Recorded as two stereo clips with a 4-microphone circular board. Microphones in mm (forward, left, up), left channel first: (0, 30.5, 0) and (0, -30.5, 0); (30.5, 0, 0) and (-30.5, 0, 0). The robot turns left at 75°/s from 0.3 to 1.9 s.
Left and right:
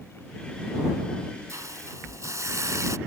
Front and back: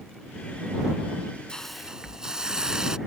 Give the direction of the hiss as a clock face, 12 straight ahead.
2 o'clock.